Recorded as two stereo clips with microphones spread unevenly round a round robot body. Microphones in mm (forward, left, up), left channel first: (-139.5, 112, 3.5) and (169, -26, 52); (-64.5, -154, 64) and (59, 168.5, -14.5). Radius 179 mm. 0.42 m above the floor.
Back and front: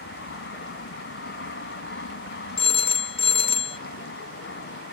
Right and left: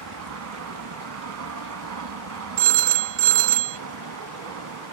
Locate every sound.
0.0 s an aircraft: 105° left
2.6 s a phone ringing: 90° left